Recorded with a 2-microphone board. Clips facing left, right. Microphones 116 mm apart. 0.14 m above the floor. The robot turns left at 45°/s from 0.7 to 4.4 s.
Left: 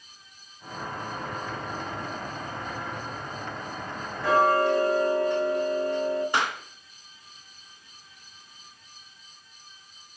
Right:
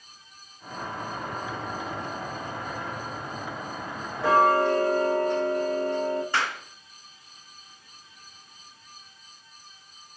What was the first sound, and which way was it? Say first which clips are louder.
Ticking: right 1 dB; 80° right.